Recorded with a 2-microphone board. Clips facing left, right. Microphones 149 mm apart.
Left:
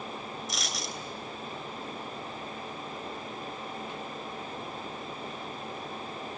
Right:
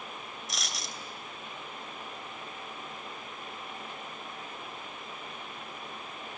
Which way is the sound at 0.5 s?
Centre (ahead or behind).